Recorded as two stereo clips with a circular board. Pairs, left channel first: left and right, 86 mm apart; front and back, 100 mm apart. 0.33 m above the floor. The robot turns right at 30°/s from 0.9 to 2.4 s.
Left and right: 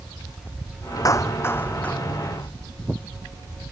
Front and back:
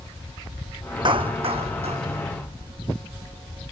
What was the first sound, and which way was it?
A clap, 140° left.